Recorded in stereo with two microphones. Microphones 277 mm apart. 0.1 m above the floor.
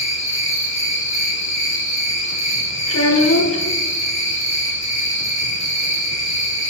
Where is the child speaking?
60° left (ahead or behind), 1.3 m.